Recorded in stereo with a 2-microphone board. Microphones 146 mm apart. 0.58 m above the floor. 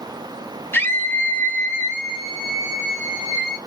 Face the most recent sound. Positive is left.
turn(degrees=-5)  # may be behind; listen again after turning